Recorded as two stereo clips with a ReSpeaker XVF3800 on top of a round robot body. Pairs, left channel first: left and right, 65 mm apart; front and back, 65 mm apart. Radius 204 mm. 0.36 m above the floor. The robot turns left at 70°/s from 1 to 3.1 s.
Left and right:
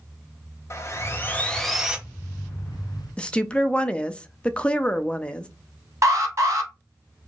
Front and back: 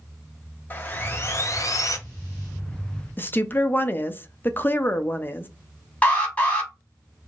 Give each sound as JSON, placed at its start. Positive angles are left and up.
{"t": 0.7, "sound": "sawing", "azimuth_deg": 50, "distance_m": 1.2}
{"t": 3.2, "sound": "a woman speaking", "azimuth_deg": 25, "distance_m": 0.9}
{"t": 6.0, "sound": "an alarm", "azimuth_deg": -65, "distance_m": 2.0}